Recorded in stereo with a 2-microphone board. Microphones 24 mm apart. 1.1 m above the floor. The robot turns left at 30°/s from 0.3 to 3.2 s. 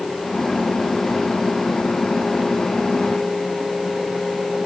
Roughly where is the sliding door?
I don't hear a sliding door.